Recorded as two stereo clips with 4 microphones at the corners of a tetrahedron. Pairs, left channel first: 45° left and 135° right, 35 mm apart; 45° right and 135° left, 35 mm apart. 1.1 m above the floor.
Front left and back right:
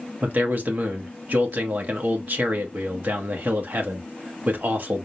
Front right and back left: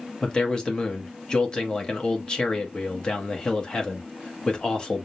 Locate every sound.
0.2 s a man speaking: 110° right, 1.6 m